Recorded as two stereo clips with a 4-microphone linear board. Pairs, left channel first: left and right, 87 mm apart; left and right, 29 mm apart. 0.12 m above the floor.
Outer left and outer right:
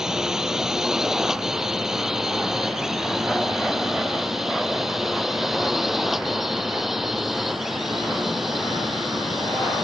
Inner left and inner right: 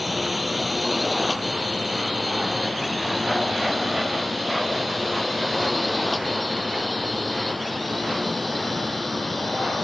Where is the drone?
5° right (ahead or behind); by 9.8 s centre (ahead or behind).